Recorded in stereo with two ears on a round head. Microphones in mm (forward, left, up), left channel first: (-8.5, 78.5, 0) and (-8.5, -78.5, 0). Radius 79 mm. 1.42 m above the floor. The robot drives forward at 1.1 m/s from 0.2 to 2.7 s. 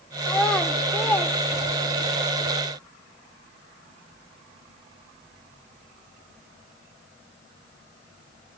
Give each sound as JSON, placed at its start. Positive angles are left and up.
{"t": 0.2, "sound": "a child speaking", "side_deg": 5, "distance_m": 2.0}